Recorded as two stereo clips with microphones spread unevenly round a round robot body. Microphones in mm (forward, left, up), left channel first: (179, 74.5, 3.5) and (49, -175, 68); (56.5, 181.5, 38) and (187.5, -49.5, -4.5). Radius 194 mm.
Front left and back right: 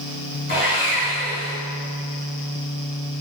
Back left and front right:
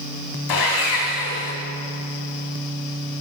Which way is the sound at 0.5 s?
130° left.